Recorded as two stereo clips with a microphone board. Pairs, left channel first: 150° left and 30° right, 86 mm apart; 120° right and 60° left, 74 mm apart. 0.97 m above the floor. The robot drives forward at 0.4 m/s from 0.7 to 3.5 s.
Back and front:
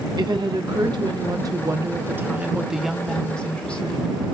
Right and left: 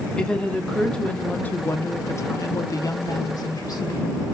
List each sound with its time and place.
0.2 s a woman speaking: 40° right, 0.9 m; by 4.2 s 135° right, 0.9 m